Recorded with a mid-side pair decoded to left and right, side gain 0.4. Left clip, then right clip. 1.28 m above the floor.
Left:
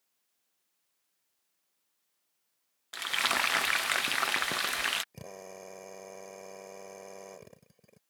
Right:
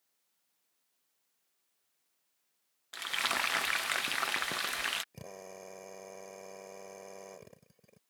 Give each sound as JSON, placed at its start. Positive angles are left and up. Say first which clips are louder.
{"t": 2.9, "sound": "frying", "louder": "left 4 dB", "azimuth_deg": 30}
{"t": 5.1, "sound": "a drill", "louder": "left 2 dB", "azimuth_deg": 15}